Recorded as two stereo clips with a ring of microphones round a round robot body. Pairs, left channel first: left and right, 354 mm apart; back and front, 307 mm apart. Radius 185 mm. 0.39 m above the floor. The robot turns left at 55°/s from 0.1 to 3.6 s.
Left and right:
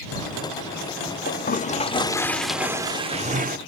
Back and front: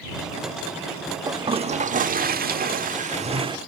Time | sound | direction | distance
1.3 | a toilet flushing | 65° left | ?